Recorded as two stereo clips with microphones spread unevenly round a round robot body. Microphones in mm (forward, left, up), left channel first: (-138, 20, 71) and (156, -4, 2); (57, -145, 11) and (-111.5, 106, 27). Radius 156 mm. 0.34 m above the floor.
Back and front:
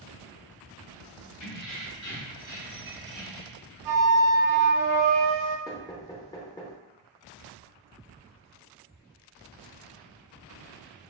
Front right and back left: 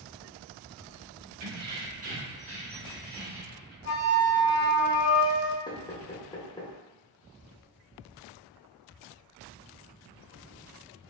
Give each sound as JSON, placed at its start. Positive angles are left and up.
{"t": 1.4, "sound": "keys jangling", "azimuth_deg": 180, "distance_m": 1.1}
{"t": 3.9, "sound": "a flute", "azimuth_deg": 0, "distance_m": 0.6}
{"t": 5.7, "sound": "knocking", "azimuth_deg": -95, "distance_m": 0.5}